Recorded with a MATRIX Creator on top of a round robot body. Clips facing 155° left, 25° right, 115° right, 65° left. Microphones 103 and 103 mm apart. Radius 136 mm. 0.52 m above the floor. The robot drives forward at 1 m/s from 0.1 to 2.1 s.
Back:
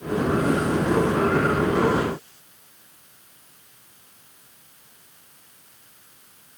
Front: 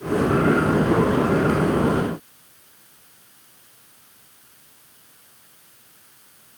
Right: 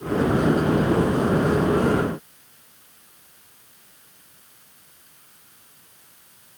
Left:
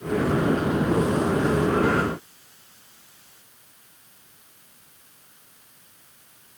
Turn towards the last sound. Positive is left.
No sound to turn to.